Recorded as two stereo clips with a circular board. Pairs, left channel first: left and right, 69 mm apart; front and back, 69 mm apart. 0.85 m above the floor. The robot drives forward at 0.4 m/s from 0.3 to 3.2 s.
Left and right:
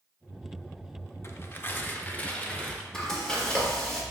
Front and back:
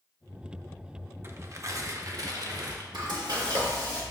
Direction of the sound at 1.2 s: 135° left.